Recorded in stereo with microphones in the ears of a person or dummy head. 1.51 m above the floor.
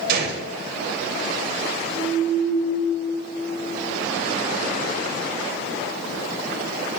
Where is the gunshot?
55° right (ahead or behind), 3 m.